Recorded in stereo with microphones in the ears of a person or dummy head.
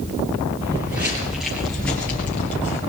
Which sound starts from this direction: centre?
Footsteps, at 0.6 s.